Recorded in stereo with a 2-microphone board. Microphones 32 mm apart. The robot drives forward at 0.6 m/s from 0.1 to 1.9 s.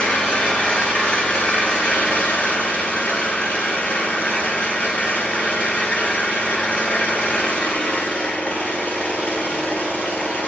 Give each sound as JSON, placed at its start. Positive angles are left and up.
{"t": 0.0, "sound": "an engine running", "side_deg": 45, "distance_m": 1.5}